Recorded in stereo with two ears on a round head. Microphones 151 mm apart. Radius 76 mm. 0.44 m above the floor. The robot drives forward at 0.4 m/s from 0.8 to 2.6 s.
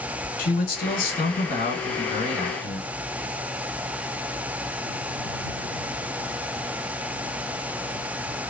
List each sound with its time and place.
0.4 s a man speaking: 55° left (ahead or behind), 1.6 m; by 2.9 s 45° left (ahead or behind), 1.8 m